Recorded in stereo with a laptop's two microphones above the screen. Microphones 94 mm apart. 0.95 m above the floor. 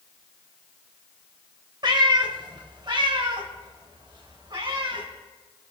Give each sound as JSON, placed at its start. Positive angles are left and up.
{"t": 1.8, "sound": "a cat meowing", "side_deg": -55, "distance_m": 1.5}